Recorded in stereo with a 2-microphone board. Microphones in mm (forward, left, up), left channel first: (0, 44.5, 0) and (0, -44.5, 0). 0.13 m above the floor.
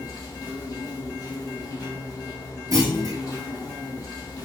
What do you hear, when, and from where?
0.0 s an insect: 50° left (ahead or behind), 1.8 m
2.7 s a clunk: 40° right (ahead or behind), 1.2 m